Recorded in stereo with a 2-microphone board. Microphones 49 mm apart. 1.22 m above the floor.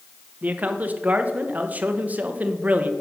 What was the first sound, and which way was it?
A man speaking, 30° right (ahead or behind).